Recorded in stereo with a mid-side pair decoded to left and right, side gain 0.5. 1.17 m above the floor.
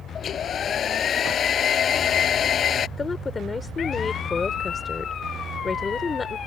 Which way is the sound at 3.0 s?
35° left.